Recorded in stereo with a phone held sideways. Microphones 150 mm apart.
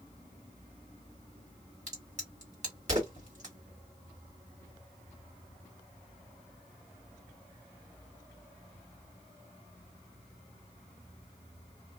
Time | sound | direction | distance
1.9 | a crack | 55° right (ahead or behind) | 1.8 m